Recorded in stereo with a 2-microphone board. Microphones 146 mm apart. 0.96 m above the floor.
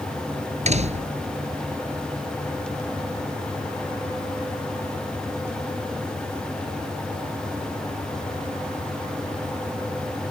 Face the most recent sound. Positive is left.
turn(degrees=-50)  # may be behind; listen again after turning